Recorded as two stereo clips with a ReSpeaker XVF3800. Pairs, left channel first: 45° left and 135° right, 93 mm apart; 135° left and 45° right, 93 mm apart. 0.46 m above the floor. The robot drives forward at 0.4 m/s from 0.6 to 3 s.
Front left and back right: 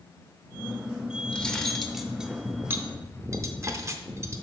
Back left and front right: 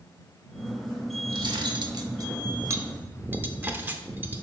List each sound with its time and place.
1.3 s cutlery clinking: 30° right, 0.9 m; by 4.4 s 100° right, 0.6 m